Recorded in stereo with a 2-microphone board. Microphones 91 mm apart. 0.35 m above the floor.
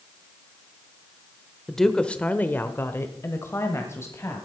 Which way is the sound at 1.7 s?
Centre (ahead or behind).